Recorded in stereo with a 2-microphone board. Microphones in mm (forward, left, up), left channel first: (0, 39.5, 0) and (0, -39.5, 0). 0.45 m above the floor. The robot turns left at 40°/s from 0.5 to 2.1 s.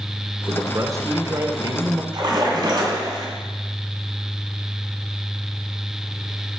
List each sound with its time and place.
0.5 s a man speaking: 50° right, 1.0 m; by 2.0 s 110° right, 1.0 m
2.1 s a splash: 65° right (ahead or behind), 2.5 m